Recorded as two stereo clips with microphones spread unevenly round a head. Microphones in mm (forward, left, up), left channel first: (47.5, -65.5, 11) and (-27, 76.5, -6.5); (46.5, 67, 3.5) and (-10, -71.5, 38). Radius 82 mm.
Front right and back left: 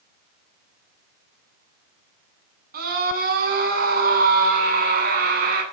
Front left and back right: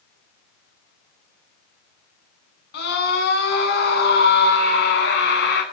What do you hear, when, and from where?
2.7 s a scream: 85° left, 8.5 m